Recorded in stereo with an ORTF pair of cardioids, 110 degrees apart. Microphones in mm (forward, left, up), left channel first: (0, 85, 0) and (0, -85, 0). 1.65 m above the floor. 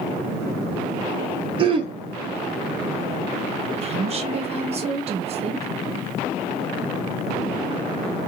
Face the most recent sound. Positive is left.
turn(degrees=-40)